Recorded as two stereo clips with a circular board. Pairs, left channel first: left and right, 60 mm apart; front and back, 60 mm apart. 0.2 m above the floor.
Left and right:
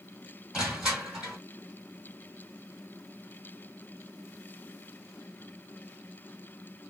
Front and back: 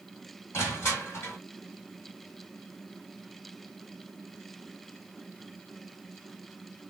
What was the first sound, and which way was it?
Crushing, 15° right.